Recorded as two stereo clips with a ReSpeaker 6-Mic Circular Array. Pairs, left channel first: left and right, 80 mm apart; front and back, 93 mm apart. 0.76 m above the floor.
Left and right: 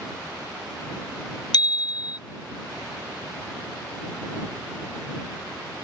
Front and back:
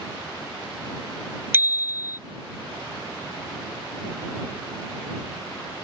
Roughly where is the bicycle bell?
Behind left.